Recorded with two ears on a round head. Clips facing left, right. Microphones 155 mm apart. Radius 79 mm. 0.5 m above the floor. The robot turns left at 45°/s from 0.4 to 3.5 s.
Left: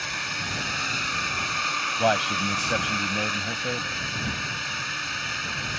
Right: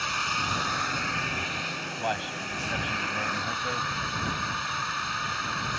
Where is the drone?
165° left; by 5.8 s 25° left.